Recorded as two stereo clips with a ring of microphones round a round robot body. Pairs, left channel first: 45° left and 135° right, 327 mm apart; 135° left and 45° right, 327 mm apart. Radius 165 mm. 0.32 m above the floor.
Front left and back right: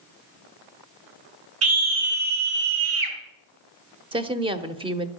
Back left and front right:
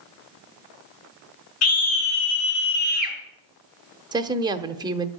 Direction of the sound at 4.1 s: 95° right.